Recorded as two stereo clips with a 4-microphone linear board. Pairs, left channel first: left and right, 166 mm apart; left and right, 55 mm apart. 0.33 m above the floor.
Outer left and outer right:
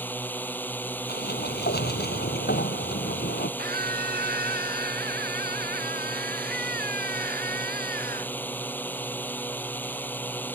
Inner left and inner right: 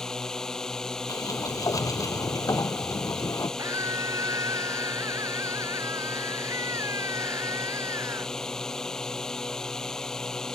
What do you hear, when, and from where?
0.0 s a drone: 10° left (ahead or behind)
1.1 s a sliding door: 80° left
3.6 s a scream: 75° right (ahead or behind)